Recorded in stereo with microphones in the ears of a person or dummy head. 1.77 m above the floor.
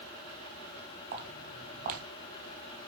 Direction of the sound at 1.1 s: 45° right (ahead or behind).